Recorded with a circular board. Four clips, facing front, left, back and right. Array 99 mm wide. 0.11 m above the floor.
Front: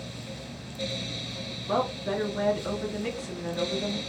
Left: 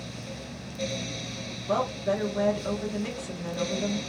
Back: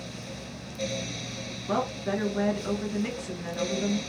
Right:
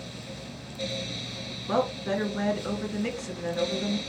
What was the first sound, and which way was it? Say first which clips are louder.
A woman speaking: even, front 1 dB; 115° right.